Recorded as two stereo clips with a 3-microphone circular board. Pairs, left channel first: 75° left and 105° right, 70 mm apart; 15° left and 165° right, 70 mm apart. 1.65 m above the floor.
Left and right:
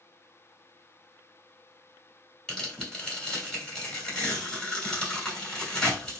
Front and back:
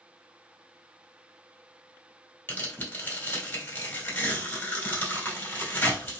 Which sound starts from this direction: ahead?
Tearing paper, at 2.5 s.